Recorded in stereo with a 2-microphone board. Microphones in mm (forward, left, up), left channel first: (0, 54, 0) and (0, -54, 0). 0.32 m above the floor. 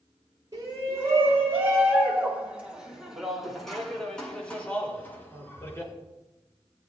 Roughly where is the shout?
Right.